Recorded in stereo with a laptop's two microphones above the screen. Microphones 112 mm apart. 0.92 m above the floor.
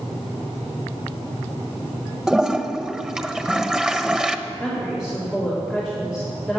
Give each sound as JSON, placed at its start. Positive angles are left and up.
{"t": 2.3, "sound": "a toilet flushing", "side_deg": -5, "distance_m": 0.9}
{"t": 4.5, "sound": "a woman speaking", "side_deg": -5, "distance_m": 2.5}